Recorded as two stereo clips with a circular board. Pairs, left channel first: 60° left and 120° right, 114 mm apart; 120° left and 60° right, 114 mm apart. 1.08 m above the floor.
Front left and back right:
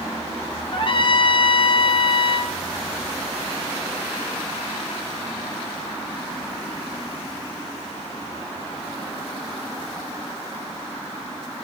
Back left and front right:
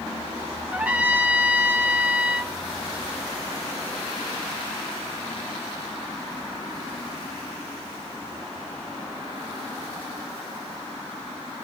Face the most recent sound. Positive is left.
turn(degrees=15)